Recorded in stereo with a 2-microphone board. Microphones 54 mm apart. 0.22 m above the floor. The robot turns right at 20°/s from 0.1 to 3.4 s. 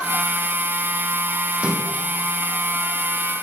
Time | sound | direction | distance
1.5 | a splash | 20° right (ahead or behind) | 3 m